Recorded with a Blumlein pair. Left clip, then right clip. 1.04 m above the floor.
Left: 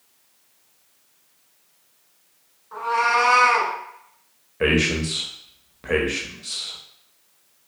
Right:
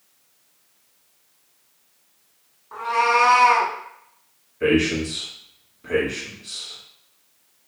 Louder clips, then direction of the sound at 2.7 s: Right 1 dB; 15° right.